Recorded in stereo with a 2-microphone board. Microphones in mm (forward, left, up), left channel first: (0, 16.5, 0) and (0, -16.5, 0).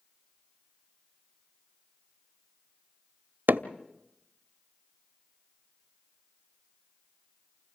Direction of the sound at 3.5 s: 85° right.